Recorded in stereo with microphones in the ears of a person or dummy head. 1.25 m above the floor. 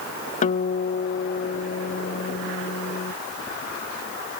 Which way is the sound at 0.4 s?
40° left (ahead or behind).